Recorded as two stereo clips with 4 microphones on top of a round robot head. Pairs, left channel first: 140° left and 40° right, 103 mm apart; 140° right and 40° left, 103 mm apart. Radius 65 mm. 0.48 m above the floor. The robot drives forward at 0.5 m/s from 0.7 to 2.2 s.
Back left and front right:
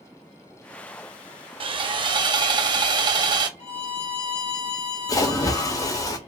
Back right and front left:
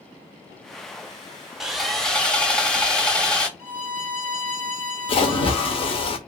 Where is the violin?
160° left, 3.5 m.